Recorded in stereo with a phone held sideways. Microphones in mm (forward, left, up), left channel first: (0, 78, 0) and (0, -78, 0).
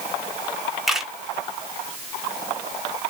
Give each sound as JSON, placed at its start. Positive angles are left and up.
{"t": 0.9, "sound": "a camera shutter", "side_deg": -5, "distance_m": 1.5}